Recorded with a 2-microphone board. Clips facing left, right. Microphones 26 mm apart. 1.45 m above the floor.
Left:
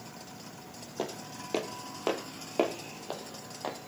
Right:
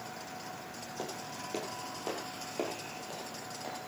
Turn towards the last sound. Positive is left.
turn(degrees=40)  # may be behind; listen again after turning